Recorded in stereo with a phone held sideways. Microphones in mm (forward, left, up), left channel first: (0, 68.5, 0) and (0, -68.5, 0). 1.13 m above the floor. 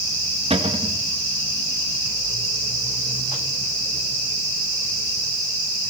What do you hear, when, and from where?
0.5 s a cupboard door: 45° right (ahead or behind), 1.6 m